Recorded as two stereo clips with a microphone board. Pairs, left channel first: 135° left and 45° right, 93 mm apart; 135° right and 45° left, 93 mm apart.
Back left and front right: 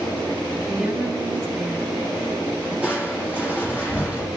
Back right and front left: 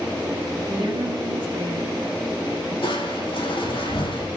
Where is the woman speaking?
20° left, 3 m.